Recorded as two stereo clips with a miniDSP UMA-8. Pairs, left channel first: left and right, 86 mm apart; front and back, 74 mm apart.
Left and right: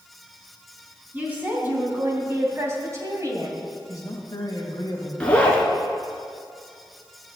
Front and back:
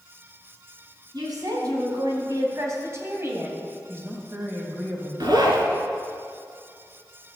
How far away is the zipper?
About 1.9 m.